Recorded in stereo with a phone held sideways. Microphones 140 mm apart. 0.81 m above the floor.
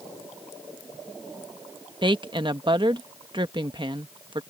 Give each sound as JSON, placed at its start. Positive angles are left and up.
{"t": 2.0, "sound": "a woman speaking", "side_deg": -35}